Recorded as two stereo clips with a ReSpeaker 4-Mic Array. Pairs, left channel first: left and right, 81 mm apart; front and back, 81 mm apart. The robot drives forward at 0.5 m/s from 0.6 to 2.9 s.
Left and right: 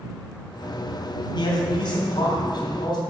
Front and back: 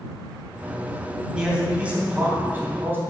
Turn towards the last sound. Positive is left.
turn(degrees=115)